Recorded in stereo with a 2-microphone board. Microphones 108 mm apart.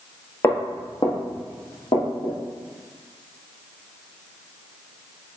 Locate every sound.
0.4 s footsteps: 25° left (ahead or behind), 0.7 m; by 2.4 s 70° left (ahead or behind), 2.5 m